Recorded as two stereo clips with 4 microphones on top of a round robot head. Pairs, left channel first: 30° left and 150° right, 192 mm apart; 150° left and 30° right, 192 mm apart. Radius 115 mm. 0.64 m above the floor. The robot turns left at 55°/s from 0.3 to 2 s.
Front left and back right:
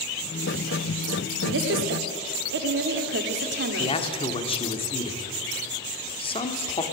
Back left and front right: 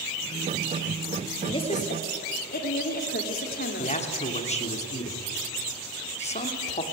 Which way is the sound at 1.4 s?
140° right.